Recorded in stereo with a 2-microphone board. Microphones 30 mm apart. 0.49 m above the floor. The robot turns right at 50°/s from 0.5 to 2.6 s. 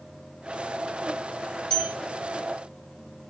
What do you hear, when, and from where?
1.7 s a bell: 25° left (ahead or behind), 1.4 m; by 2.0 s 20° left (ahead or behind), 1.4 m